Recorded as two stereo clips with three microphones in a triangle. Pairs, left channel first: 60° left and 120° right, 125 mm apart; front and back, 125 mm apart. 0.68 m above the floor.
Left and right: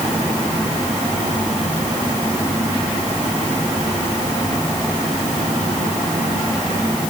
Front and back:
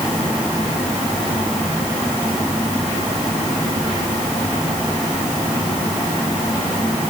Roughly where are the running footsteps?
No running footsteps in this recording.